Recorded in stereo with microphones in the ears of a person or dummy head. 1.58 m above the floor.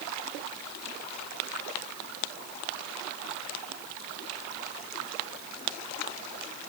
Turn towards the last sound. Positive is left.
No sound to turn to.